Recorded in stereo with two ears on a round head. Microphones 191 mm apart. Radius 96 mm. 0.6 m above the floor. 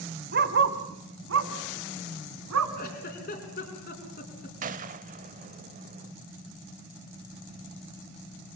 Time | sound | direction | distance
0.3 | a dog barking | 50° right (ahead or behind) | 1.5 m
2.8 | a giggle | 45° left (ahead or behind) | 4 m
4.6 | a gunshot | 40° right (ahead or behind) | 0.9 m